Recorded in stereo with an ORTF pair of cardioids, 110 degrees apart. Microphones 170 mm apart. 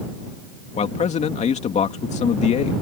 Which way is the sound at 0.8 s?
45° left.